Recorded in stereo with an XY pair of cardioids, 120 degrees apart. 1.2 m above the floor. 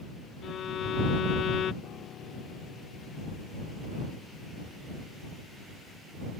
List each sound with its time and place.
0.4 s a violin: 50° left
1.8 s a piano: 60° left